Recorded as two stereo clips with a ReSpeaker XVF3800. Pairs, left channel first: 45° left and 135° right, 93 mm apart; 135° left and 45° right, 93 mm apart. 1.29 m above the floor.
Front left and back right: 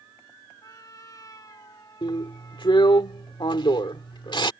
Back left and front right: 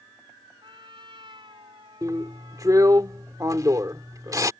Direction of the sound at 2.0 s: 10° left.